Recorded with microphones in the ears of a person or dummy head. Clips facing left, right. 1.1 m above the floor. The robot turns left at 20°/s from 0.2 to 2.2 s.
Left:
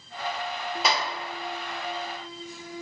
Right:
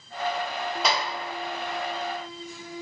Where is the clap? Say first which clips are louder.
Even; 5° left (ahead or behind), 0.8 m.